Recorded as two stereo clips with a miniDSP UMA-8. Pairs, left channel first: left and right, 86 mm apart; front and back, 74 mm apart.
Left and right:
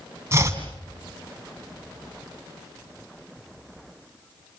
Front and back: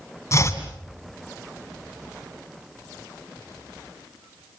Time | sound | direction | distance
0.3 | chopping | 40° right | 2.5 m